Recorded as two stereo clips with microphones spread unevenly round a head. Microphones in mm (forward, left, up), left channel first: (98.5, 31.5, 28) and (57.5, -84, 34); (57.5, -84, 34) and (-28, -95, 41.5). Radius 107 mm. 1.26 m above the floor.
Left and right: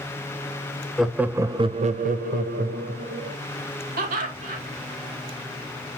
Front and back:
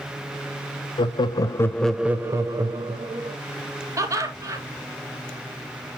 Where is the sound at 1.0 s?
20° right, 1.2 m; by 3.4 s 140° right, 1.9 m.